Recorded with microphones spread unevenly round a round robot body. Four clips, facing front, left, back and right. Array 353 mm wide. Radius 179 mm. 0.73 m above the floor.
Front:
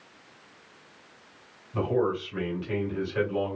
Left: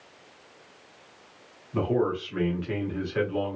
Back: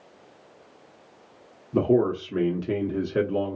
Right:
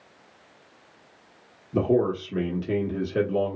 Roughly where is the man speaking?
Behind right.